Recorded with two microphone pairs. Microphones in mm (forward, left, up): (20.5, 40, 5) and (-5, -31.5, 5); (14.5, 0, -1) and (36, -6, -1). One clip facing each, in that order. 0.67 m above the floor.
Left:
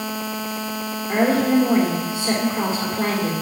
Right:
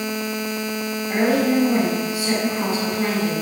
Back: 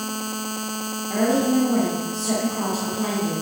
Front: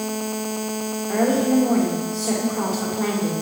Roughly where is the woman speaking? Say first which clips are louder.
Left 1 dB, front 1 dB; ahead.